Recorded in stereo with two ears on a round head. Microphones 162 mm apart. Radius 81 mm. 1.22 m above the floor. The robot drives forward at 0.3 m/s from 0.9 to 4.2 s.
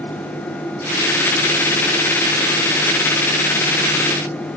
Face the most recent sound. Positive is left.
No sound to turn to.